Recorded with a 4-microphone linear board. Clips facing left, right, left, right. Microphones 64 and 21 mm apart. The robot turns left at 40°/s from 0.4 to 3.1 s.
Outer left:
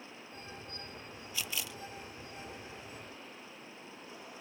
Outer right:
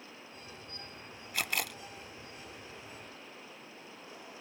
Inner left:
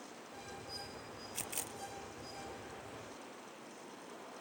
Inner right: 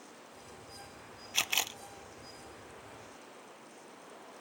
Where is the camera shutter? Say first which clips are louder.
Outer right 6 dB, inner right 14 dB; 65° right (ahead or behind); by 1.8 s 60° right (ahead or behind).